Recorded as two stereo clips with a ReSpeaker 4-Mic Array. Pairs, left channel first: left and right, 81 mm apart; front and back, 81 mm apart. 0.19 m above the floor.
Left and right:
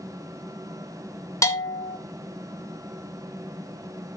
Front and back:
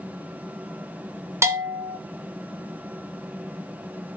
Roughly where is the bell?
Behind left.